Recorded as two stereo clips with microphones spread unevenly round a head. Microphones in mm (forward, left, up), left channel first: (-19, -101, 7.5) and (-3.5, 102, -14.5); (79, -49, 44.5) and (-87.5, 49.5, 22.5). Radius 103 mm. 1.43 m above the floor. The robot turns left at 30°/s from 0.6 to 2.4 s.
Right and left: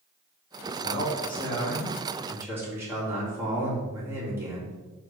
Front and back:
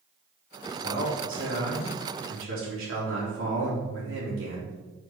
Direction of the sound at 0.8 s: 150° right.